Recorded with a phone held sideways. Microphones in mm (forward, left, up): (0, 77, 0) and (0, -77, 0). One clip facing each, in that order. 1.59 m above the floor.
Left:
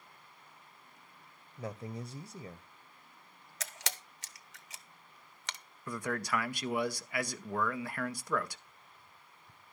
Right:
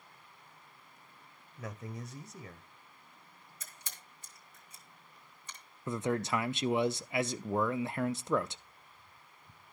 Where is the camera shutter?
75° left (ahead or behind), 0.7 m.